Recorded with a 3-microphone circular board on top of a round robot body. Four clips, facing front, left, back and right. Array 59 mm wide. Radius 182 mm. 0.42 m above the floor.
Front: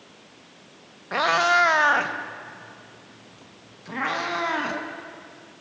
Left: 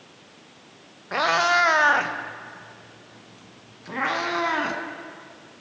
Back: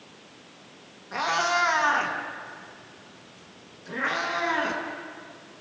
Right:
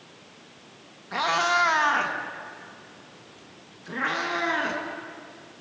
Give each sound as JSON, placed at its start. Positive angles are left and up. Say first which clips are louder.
{"t": 1.1, "sound": "a cat meowing", "louder": "left 3 dB, front 5 dB", "azimuth_deg": 40, "distance_m": 1.7}